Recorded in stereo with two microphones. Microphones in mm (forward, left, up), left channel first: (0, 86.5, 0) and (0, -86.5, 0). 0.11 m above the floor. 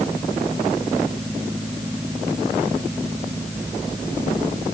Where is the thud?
No thud in this recording.